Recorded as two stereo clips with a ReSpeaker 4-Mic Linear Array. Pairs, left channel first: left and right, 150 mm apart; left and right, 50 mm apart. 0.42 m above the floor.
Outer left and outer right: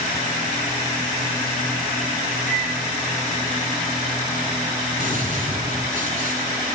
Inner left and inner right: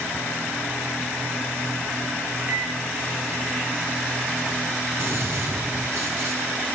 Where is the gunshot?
65° right (ahead or behind), 5 m.